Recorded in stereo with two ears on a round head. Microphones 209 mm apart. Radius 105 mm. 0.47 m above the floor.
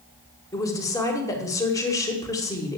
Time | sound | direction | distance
0.5 | a woman speaking | 15° left (ahead or behind) | 1.7 m